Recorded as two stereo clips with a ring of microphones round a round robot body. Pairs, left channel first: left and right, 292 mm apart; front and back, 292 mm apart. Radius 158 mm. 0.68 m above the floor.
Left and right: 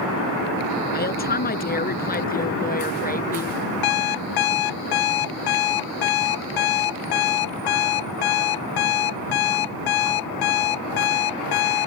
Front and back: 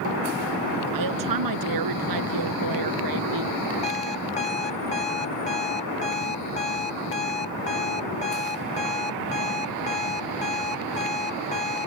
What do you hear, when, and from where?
0.9 s a woman speaking: 150° left
3.8 s an alarm clock: 70° left